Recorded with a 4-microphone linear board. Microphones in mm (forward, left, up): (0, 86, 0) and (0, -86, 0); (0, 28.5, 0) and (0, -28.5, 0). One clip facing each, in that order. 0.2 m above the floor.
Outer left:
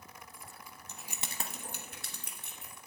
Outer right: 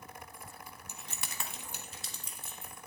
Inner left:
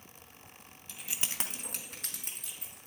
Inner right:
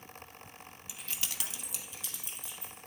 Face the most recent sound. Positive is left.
turn(degrees=65)  # may be behind; listen again after turning